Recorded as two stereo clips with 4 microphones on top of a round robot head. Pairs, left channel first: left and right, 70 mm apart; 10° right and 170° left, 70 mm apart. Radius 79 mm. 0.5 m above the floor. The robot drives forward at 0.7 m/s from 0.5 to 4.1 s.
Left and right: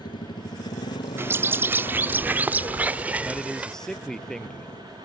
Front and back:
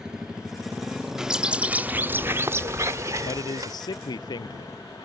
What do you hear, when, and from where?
0.0 s a motorcycle: 90° left
1.2 s a bird: 110° right; by 3.8 s 160° right
3.2 s a man speaking: 5° left